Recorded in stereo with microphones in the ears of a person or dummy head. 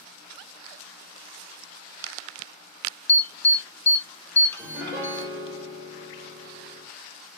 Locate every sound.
3.1 s an alarm: 15° left (ahead or behind), 0.7 m
4.6 s a piano: 10° right (ahead or behind), 0.8 m